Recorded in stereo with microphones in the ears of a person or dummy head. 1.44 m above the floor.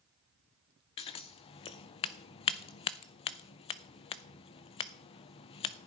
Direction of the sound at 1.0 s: 30° left (ahead or behind).